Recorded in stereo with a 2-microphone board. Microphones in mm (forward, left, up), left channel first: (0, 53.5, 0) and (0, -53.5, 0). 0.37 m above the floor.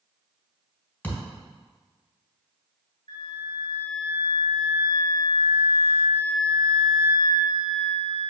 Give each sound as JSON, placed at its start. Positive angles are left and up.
{"t": 1.0, "sound": "a thud", "side_deg": 20, "distance_m": 1.6}
{"t": 3.1, "sound": "a flute", "side_deg": 60, "distance_m": 1.4}